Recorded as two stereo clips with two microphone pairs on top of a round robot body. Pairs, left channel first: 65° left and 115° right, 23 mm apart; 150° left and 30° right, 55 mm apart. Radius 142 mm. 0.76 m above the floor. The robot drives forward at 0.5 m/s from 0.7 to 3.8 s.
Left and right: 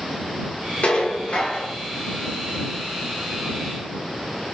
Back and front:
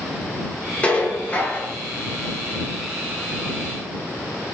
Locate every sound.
0.8 s dishes clattering: 85° left, 2 m; by 1.7 s 100° left, 2 m